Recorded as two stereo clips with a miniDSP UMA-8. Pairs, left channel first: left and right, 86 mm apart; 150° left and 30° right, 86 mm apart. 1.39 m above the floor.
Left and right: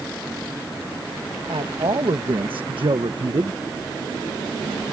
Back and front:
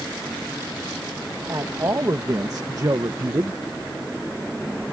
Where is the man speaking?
80° right; by 3.6 s 70° right.